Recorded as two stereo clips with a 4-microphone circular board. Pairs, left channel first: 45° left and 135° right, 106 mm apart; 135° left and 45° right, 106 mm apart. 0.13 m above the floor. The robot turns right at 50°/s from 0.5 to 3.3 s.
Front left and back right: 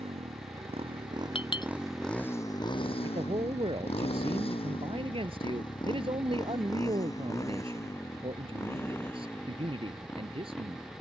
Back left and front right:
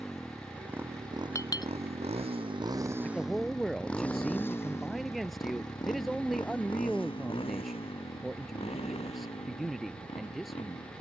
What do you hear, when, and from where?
0.0 s a motorcycle: 135° right; by 11.0 s 120° left
1.4 s a clink: 75° left; by 1.7 s 95° left
3.0 s a man speaking: 150° right; by 10.8 s 135° right